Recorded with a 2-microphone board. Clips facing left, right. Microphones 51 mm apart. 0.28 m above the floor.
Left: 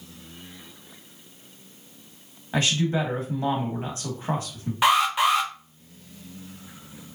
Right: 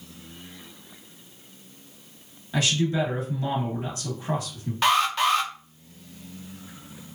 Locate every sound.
2.5 s a man speaking: 35° left (ahead or behind), 1.3 m
4.8 s an alarm: 10° left (ahead or behind), 0.6 m